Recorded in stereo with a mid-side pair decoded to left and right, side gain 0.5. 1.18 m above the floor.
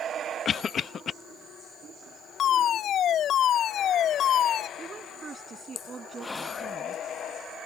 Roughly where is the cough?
Ahead left.